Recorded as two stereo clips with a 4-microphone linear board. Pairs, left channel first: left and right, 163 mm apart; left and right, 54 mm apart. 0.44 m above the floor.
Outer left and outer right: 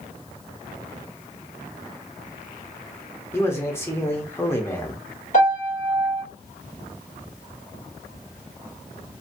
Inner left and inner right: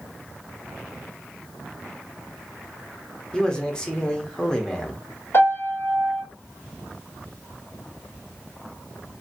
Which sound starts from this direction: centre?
A man speaking, at 3.3 s.